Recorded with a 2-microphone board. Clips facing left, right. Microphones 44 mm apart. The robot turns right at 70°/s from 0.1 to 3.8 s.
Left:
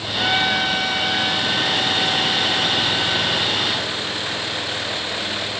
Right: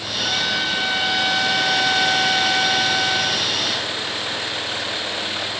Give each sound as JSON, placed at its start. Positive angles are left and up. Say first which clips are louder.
{"t": 0.2, "sound": "a trumpet", "louder": "left 4 dB", "azimuth_deg": 130, "distance_m": 4.0}